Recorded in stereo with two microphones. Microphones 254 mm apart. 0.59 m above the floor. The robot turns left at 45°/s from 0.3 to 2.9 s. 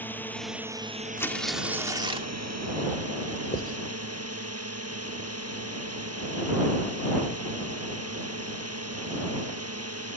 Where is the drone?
5° left; by 10.2 s 110° right.